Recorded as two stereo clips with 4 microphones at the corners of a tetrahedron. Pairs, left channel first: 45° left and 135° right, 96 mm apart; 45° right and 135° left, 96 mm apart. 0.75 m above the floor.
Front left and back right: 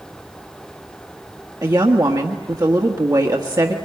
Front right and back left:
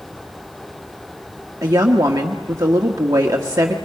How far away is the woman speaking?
About 1.5 m.